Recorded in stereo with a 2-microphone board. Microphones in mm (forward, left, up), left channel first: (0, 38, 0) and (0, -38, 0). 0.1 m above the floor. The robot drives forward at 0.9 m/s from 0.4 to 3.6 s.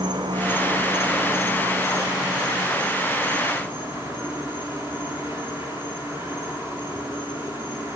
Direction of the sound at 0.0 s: 80° right.